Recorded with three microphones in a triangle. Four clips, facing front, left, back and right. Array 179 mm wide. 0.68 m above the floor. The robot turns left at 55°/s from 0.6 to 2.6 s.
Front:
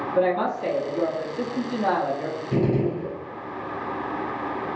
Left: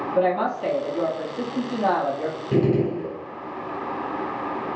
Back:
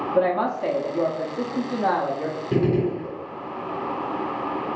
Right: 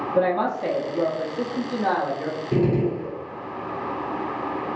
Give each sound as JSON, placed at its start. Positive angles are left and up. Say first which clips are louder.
{"t": 0.1, "sound": "a woman speaking", "louder": "even, back 1 dB", "azimuth_deg": -155, "distance_m": 0.9}
{"t": 2.5, "sound": "a gunshot", "louder": "left 1 dB, back 1 dB", "azimuth_deg": 150, "distance_m": 1.8}